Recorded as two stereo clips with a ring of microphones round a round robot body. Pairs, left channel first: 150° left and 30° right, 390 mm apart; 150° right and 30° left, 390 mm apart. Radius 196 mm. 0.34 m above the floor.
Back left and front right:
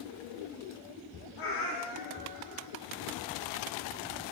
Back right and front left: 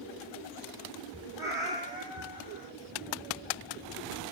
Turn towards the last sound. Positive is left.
turn(degrees=105)